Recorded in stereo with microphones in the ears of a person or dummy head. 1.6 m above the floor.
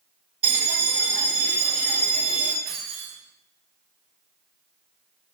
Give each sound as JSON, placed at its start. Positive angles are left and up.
{"t": 0.4, "sound": "a bell", "side_deg": -10, "distance_m": 0.9}
{"t": 2.6, "sound": "keys jangling", "side_deg": -60, "distance_m": 1.2}